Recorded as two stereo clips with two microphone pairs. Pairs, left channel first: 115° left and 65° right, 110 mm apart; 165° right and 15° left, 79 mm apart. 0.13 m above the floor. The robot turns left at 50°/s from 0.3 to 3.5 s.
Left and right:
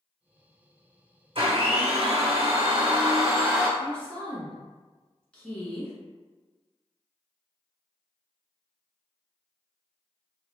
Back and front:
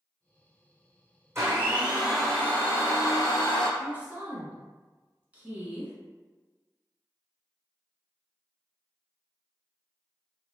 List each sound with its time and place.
1.4 s a blender: 35° right, 1.2 m; by 3.7 s 140° right, 1.2 m
3.8 s a woman speaking: 50° left, 1.2 m